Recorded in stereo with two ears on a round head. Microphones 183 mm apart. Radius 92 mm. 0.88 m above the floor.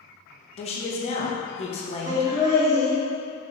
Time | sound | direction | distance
0.6 | a man speaking | 30° left (ahead or behind) | 0.6 m
2.1 | laughter | 20° right (ahead or behind) | 0.6 m